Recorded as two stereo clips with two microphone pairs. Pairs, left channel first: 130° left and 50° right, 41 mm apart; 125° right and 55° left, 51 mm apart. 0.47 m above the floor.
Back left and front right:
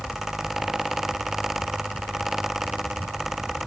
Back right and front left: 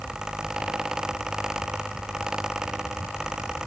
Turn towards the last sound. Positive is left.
No sound to turn to.